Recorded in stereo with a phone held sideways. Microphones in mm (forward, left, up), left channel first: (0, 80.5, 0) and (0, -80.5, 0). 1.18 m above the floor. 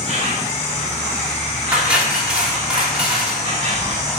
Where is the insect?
40° right (ahead or behind), 1.3 m.